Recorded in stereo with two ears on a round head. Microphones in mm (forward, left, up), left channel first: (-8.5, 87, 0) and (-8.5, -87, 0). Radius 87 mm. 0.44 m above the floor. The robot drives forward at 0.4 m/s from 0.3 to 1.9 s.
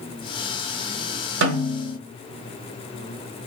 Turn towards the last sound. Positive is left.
turn(degrees=-60)  # may be behind; listen again after turning